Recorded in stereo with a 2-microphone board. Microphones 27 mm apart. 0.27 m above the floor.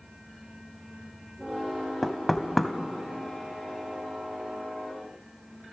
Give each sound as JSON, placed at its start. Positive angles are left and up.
{"t": 2.0, "sound": "knocking", "side_deg": 5, "distance_m": 1.0}